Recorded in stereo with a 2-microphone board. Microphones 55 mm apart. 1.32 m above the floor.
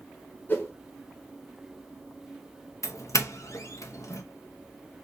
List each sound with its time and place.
0.5 s a whoosh: 30° left (ahead or behind), 1.2 m
2.8 s a doorbell: 75° left (ahead or behind), 0.8 m